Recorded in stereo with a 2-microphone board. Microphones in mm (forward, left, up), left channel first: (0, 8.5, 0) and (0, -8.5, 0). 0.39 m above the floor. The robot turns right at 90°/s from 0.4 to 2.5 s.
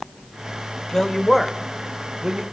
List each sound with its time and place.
0.9 s a woman speaking: 35° left (ahead or behind), 1.1 m; by 2.4 s 45° right (ahead or behind), 1.1 m